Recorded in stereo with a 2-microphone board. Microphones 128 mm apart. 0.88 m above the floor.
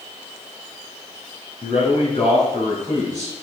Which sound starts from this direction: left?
A man speaking, at 1.6 s.